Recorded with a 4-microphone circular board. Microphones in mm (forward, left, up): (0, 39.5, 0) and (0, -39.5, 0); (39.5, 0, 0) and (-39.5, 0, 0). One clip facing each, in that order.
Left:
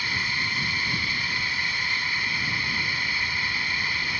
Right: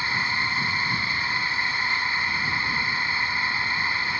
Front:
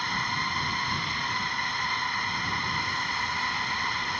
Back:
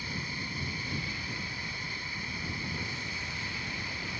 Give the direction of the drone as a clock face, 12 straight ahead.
1 o'clock.